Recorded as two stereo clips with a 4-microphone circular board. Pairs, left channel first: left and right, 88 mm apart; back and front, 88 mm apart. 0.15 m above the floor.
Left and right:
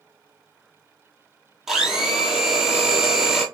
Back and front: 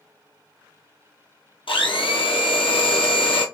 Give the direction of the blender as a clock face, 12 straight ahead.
6 o'clock.